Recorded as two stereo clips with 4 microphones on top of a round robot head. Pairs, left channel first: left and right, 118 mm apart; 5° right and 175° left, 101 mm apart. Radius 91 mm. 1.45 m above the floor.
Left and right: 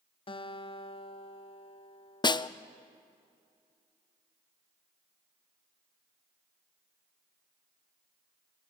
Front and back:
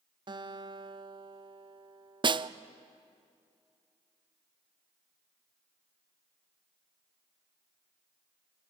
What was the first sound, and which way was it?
A guitar, 135° left.